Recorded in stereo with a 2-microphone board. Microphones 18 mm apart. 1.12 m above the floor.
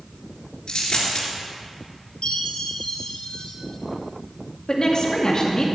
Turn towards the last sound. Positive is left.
turn(degrees=45)  # may be behind; listen again after turning